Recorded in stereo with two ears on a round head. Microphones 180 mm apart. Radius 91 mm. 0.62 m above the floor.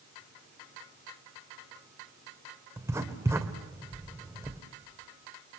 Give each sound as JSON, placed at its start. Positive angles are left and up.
{"t": 2.8, "sound": "writing", "side_deg": -15, "distance_m": 1.9}